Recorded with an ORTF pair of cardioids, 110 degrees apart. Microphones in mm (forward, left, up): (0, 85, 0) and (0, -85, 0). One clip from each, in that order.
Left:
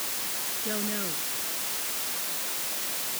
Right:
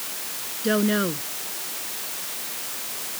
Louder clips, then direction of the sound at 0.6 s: Right 12 dB; 65° right.